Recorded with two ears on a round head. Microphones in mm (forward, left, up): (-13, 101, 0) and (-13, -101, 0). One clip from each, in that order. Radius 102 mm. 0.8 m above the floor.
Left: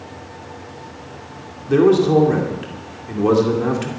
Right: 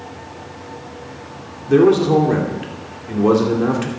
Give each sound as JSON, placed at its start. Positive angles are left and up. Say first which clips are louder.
{"t": 1.7, "sound": "a man speaking", "louder": "right 1 dB", "side_deg": 5, "distance_m": 2.5}